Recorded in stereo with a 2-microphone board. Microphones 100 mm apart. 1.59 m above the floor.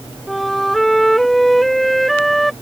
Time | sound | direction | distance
0.3 | a flute | centre (ahead or behind) | ?